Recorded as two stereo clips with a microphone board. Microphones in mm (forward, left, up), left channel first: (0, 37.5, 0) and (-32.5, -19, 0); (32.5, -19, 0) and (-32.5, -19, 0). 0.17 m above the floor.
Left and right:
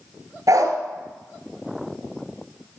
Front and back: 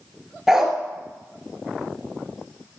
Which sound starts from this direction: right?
A dog barking, at 0.5 s.